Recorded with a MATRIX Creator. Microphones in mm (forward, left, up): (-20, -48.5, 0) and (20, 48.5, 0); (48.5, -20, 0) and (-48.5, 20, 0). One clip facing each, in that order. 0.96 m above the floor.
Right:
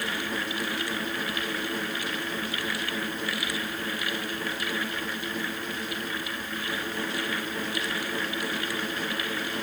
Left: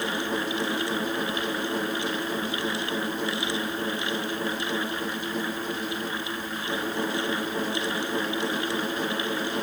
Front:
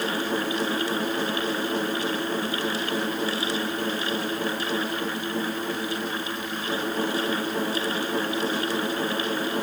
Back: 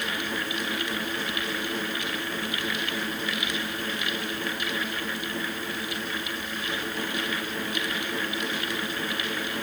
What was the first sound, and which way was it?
Only background noise.